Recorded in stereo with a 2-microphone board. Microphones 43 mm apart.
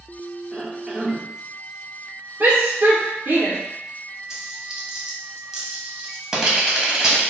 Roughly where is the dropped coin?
Centre.